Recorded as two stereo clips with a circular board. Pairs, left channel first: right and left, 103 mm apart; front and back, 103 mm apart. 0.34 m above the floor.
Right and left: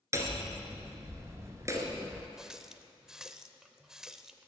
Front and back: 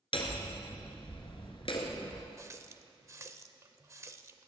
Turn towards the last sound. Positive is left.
turn(degrees=170)